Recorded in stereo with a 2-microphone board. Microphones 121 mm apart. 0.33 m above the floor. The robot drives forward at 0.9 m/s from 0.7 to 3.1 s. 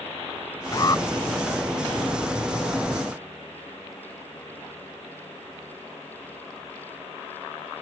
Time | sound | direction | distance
0.7 | an alarm | 35° left (ahead or behind) | ?